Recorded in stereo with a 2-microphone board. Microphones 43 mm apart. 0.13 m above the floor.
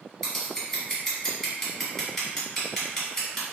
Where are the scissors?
15° left (ahead or behind), 1.8 m.